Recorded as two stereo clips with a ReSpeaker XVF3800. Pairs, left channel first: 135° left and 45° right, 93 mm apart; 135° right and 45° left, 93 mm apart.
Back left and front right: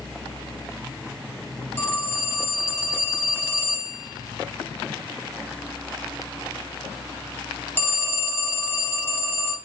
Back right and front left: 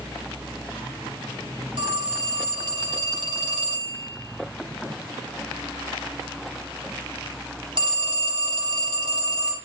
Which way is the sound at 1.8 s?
70° left.